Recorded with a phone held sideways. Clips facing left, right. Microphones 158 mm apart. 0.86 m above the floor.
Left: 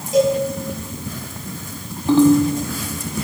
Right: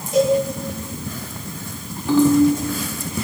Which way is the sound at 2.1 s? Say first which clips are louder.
Left 2 dB; 25° left (ahead or behind).